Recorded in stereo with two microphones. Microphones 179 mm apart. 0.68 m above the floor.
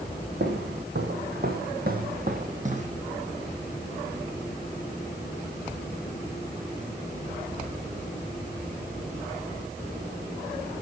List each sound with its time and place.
0.4 s footsteps: 75° right (ahead or behind), 2.5 m; by 2.9 s 40° right (ahead or behind), 1.9 m